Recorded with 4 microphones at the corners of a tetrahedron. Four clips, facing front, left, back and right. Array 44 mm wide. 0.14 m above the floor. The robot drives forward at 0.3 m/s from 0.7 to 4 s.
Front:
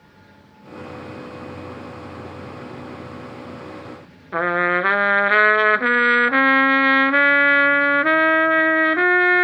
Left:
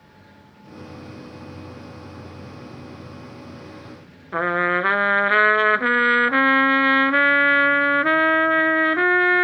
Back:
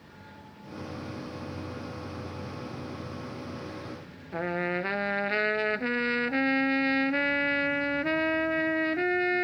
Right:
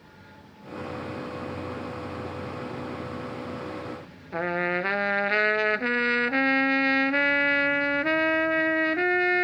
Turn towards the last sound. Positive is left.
turn(degrees=25)